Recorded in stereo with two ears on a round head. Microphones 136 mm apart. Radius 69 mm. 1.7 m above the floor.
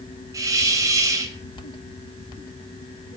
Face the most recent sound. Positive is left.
turn(degrees=-20)  # may be behind; listen again after turning